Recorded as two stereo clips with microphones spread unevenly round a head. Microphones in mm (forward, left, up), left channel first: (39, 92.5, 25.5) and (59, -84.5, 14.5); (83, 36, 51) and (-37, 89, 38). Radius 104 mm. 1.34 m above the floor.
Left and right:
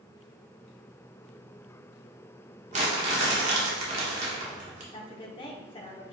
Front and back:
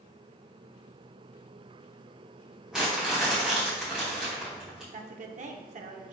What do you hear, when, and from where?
2.7 s crumpling: 110° right, 1.0 m
4.9 s a woman speaking: 160° left, 0.7 m